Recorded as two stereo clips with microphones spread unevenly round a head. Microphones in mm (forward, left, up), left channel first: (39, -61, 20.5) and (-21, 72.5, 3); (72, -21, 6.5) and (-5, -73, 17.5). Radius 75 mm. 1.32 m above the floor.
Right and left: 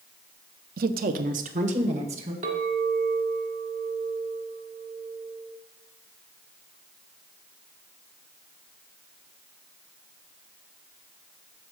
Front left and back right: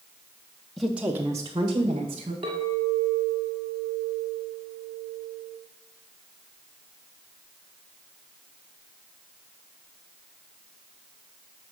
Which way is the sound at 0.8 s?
120° left.